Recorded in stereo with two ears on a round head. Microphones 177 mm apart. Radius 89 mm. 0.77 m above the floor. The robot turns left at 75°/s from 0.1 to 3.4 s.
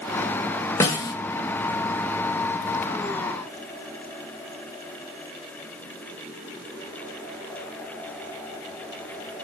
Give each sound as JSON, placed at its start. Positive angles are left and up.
{"t": 0.8, "sound": "a snare drum", "side_deg": 15, "distance_m": 0.5}